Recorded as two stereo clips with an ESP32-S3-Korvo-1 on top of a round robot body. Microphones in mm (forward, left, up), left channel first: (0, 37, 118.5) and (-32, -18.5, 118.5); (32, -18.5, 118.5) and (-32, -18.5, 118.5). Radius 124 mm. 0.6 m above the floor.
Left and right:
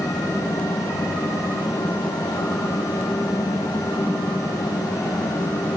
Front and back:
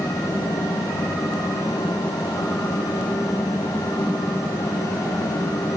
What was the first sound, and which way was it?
Only background noise.